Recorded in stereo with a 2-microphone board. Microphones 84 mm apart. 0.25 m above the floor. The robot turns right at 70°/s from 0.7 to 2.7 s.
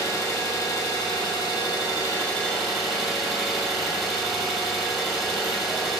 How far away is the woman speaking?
I don't hear a woman speaking.